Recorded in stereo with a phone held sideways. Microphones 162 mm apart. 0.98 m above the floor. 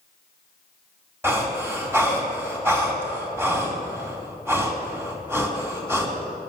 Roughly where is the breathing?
Centre.